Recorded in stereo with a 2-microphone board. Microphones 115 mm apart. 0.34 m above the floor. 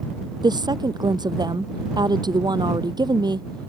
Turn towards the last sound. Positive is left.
turn(degrees=-40)  # may be behind; listen again after turning